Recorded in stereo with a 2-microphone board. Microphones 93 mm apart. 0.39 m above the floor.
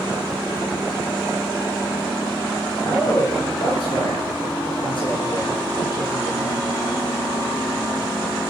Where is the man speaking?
60° left (ahead or behind), 8.5 m.